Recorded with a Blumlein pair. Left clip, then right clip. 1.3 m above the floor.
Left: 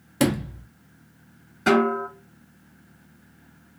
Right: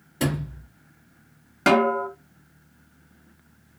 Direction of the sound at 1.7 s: 50° right.